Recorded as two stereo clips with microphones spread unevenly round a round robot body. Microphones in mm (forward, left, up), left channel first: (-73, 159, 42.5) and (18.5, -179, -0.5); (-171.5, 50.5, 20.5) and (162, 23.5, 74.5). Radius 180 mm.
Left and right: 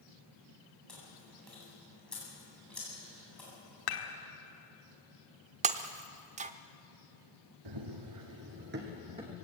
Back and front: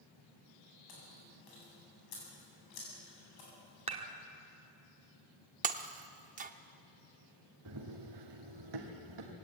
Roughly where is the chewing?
Behind.